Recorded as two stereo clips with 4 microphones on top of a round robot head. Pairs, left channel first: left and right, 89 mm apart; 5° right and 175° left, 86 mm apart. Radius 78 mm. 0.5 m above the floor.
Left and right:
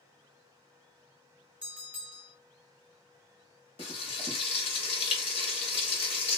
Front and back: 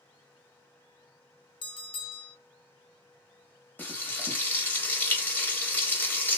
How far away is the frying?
About 0.8 m.